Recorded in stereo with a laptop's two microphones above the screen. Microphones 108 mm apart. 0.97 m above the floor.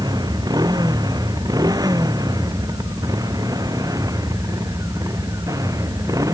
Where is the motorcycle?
40° right (ahead or behind); by 6.3 s 30° right (ahead or behind).